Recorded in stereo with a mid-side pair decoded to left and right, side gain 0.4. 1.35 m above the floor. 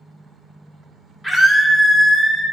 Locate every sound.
1.2 s a scream: 10° left, 3.5 m